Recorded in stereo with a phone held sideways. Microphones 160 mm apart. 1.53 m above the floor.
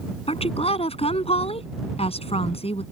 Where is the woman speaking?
40° left (ahead or behind).